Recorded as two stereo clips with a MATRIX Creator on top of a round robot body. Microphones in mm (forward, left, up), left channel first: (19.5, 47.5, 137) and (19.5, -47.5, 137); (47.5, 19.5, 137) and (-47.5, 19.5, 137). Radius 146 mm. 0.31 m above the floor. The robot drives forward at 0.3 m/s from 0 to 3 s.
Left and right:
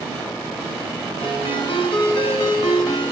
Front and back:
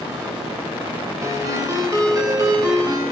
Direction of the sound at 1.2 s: 125° left.